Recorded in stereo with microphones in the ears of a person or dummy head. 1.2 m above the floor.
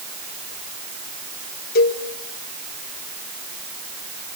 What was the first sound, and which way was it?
A cowbell, 50° left (ahead or behind).